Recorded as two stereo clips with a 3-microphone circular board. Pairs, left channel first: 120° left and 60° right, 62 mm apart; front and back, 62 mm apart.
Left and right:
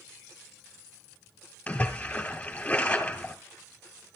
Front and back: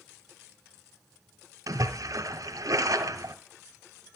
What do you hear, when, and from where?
1.7 s a splash: 170° right, 2 m